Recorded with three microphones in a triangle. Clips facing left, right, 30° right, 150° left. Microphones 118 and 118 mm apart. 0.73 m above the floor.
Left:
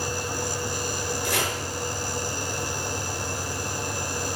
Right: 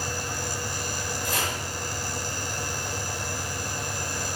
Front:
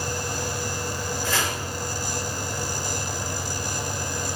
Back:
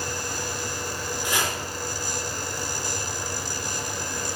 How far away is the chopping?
About 4 m.